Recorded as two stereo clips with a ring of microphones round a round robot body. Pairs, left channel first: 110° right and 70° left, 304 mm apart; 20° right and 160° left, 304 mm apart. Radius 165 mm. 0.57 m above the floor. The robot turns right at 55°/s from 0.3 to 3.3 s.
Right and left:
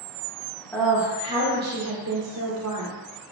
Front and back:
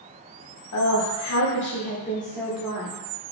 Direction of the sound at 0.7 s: 30° right.